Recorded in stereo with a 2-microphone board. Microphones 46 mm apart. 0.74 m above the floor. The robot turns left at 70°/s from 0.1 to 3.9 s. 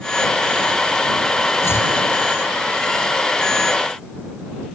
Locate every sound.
1.6 s chopping: 80° left; by 1.9 s 60° left (ahead or behind)